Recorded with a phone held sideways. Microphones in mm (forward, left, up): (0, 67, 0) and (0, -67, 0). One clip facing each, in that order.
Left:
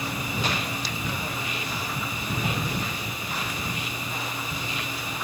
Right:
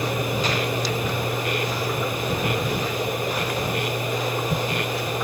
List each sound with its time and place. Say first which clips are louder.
0.0 s a machine running: right 6 dB; 60° right (ahead or behind)